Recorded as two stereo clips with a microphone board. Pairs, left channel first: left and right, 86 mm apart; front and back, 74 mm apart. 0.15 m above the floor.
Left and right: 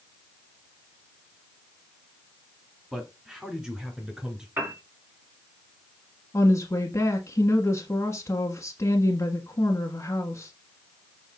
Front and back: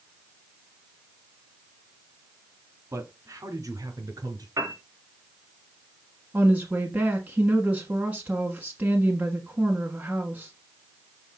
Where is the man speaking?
170° right, 2 m.